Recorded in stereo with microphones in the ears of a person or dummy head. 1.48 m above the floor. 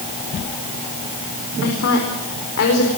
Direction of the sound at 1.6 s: 75° left (ahead or behind).